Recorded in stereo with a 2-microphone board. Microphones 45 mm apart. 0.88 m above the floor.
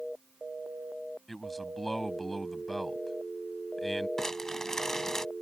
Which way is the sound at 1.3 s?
Centre (ahead or behind).